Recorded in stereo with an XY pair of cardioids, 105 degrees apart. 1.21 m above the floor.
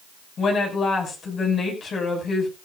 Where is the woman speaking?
50° left, 6 m.